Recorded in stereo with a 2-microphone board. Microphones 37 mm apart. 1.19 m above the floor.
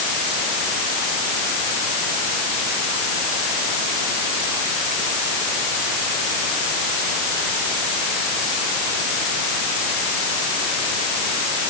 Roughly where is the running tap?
No running tap in this recording.